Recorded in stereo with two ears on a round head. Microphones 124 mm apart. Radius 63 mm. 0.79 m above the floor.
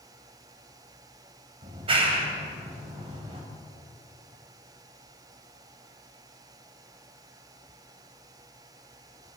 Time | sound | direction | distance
1.6 | a clap | 45° right (ahead or behind) | 3 m